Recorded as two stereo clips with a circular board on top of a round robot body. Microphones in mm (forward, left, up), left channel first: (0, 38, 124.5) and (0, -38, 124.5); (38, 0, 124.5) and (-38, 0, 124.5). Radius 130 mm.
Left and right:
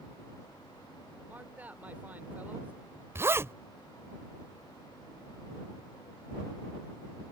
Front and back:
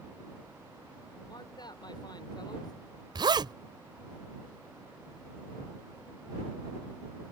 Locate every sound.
1.3 s a man speaking: 25° right
3.1 s a zipper: 150° right